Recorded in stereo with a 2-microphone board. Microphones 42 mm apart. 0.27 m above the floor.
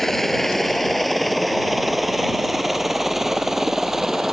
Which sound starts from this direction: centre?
A helicopter, at 0.0 s.